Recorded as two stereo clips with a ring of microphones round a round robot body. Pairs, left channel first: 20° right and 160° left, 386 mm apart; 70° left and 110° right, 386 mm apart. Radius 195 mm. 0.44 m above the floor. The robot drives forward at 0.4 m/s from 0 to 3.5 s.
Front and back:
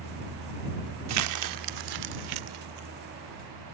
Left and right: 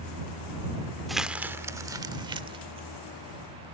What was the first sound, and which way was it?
Crumpling, 155° left.